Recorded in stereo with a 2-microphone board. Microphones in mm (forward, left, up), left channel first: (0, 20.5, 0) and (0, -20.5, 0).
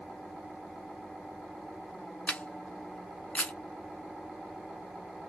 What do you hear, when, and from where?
2.3 s a camera shutter: 40° left (ahead or behind), 0.8 m